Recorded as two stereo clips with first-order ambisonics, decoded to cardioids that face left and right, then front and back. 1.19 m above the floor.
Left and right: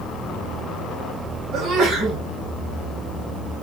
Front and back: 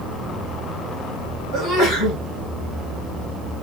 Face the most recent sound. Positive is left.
turn(degrees=-45)